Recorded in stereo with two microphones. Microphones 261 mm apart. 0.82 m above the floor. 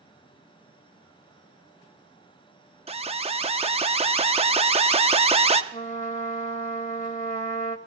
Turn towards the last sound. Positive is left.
turn(degrees=30)  # may be behind; listen again after turning